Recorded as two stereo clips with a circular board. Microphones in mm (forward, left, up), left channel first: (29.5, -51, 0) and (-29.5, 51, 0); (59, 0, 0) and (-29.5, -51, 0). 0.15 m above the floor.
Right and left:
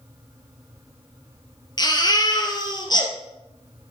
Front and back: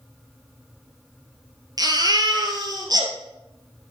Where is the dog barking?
No dog barking in this recording.